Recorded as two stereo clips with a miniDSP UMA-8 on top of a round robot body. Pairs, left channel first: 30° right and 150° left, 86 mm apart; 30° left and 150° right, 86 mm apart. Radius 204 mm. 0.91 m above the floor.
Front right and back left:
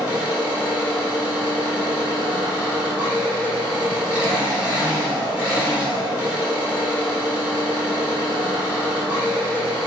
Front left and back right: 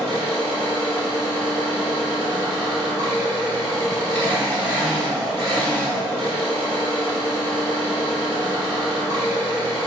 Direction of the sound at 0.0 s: 135° right.